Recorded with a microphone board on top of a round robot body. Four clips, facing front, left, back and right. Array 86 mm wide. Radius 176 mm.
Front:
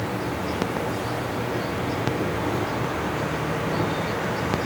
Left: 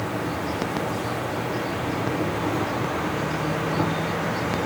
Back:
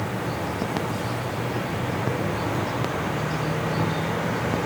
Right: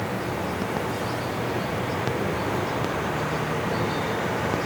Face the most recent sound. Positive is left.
turn(degrees=95)